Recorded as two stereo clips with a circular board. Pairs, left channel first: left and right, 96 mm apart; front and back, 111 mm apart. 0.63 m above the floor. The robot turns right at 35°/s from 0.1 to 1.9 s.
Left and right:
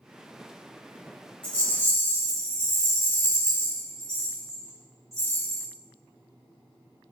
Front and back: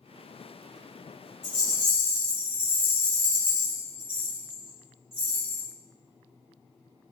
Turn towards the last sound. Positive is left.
turn(degrees=35)